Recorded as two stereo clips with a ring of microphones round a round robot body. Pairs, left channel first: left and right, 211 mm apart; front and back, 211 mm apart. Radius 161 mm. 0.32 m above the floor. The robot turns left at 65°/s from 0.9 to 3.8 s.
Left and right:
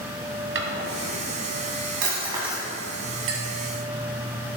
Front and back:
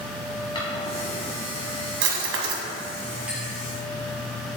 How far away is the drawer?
About 1.8 m.